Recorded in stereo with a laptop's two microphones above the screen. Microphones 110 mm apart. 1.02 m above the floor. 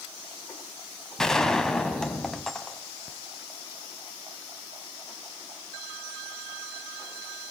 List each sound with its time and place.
1.2 s a gunshot: 5° left (ahead or behind), 2 m